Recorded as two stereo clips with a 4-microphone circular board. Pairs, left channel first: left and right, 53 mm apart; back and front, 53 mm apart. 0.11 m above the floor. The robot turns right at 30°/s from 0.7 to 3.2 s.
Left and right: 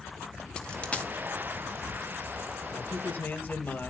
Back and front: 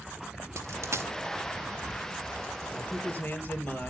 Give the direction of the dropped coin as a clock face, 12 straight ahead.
11 o'clock.